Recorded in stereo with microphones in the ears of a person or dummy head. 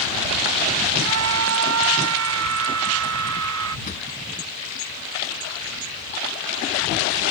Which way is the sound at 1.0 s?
75° right (ahead or behind).